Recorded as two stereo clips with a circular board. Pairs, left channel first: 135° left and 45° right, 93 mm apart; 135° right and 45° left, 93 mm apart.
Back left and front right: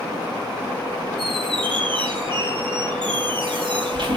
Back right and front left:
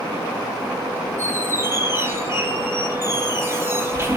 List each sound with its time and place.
1.2 s a squeak: 15° right, 5.5 m